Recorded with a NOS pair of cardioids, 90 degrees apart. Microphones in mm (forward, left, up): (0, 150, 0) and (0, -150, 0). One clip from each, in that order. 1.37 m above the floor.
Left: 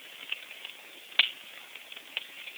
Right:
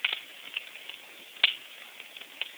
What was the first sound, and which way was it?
Only background noise.